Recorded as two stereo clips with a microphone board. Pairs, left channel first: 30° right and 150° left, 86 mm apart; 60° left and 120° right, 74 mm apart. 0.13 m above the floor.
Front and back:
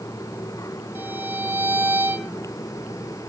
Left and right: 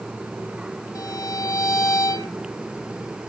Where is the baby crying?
I don't hear a baby crying.